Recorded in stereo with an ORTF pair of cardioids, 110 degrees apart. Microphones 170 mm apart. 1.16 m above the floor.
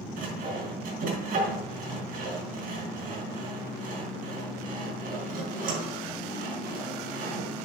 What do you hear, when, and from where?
0.2 s sawing: 60° right, 5.5 m